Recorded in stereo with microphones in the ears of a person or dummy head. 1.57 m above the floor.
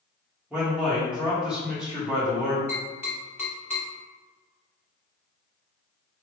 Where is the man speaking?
Centre (ahead or behind), 1.5 m.